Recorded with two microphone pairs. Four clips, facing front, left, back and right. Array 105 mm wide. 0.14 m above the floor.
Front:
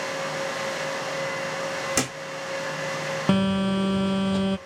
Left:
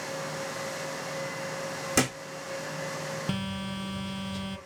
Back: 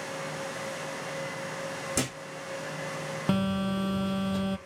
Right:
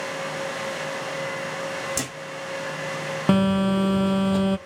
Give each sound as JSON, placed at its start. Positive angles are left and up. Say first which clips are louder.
{"t": 2.0, "sound": "a thud", "louder": "left 5 dB, front 1 dB", "azimuth_deg": 55, "distance_m": 3.5}
{"t": 3.3, "sound": "a phone buzzing", "louder": "right 14 dB, front 5 dB", "azimuth_deg": -65, "distance_m": 0.8}